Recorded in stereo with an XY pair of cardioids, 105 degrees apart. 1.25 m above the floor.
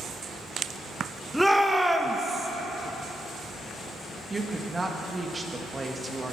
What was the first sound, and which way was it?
A shout, straight ahead.